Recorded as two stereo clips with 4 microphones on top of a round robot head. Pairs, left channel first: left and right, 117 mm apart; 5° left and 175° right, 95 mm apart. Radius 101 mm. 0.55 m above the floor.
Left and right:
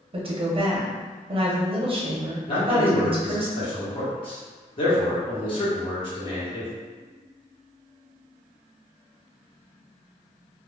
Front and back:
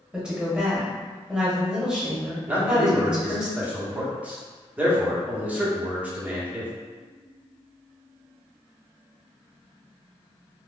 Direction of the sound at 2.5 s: 115° left.